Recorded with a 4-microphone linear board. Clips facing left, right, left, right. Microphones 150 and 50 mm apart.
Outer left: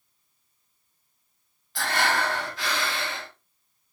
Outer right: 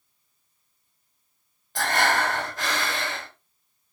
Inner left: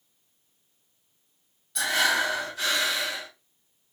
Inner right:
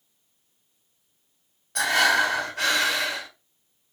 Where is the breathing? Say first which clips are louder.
Outer right 2 dB, inner right 4 dB; 45° right (ahead or behind), 1.5 m.